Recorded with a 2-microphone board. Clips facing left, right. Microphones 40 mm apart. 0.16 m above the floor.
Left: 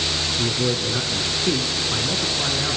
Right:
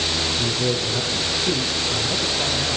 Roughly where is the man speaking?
Left.